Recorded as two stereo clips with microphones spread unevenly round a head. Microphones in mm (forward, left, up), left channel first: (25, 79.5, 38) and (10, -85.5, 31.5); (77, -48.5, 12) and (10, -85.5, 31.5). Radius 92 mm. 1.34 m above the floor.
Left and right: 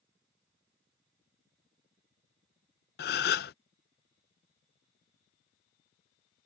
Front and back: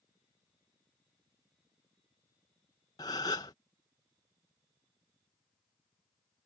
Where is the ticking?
No ticking in this recording.